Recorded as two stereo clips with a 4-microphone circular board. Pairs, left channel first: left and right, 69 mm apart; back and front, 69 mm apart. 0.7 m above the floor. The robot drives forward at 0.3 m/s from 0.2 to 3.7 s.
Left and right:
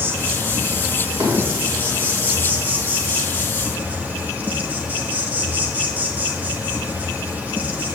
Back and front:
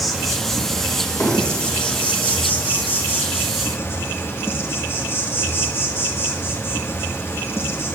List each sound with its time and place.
0.0 s an insect: 90° right, 1.6 m; by 8.0 s 145° right, 1.9 m
1.2 s hammering: 115° right, 5.5 m; by 1.7 s 120° right, 5.5 m